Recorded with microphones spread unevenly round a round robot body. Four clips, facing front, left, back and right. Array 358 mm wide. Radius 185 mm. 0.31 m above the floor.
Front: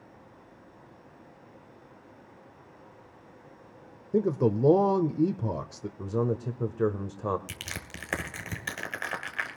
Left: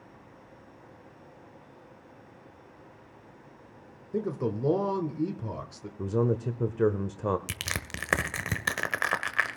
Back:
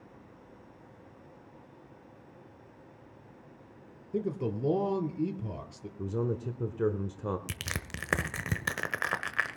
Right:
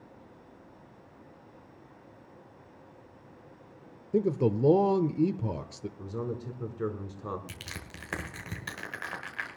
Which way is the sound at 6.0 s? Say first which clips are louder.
Left 10 dB, front 3 dB; 70° left.